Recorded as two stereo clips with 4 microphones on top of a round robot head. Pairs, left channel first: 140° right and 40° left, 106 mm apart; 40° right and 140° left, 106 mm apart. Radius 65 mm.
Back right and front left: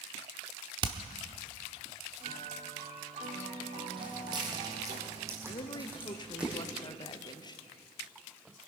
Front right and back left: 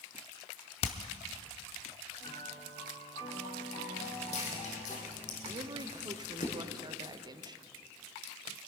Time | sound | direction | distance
0.8 | hammering | 5° right | 0.7 m
2.2 | a piano | 5° left | 3 m
4.0 | footsteps | 10° right | 2.5 m
5.5 | a woman speaking | straight behind | 0.9 m